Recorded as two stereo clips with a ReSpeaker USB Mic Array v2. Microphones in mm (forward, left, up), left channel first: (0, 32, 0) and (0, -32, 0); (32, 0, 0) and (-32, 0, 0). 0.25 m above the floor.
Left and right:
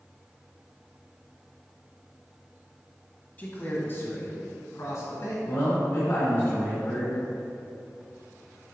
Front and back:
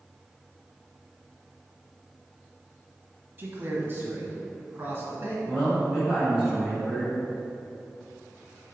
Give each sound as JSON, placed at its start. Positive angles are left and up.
{"t": 3.4, "sound": "a man speaking", "azimuth_deg": 140, "distance_m": 1.3}
{"t": 5.5, "sound": "a man speaking", "azimuth_deg": 105, "distance_m": 1.9}